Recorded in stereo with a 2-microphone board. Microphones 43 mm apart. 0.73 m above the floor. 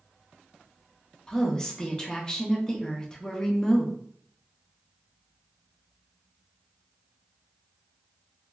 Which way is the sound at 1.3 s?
20° left (ahead or behind).